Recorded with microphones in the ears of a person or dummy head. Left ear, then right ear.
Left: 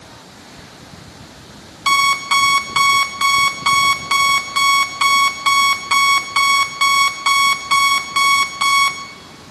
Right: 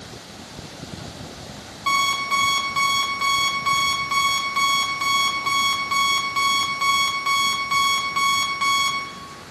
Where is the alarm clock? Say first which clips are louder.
Left 6 dB; 15° left (ahead or behind), 0.6 m.